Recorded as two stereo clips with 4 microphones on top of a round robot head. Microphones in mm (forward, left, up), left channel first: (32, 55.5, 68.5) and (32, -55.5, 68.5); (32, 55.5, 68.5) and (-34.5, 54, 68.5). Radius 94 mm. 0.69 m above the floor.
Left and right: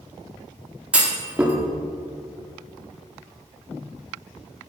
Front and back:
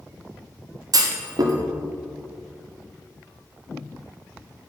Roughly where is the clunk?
Behind.